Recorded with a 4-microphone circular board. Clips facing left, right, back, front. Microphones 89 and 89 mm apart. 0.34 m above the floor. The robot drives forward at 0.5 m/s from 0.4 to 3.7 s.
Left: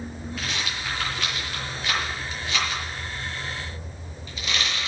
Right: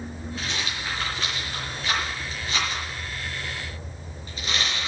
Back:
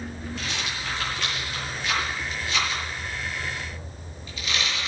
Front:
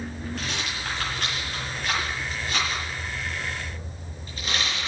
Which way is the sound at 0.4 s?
35° right.